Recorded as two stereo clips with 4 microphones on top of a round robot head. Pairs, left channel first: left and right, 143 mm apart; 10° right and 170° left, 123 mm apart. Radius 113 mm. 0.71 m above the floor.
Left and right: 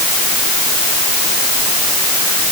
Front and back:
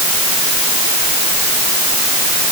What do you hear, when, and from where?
Only background noise.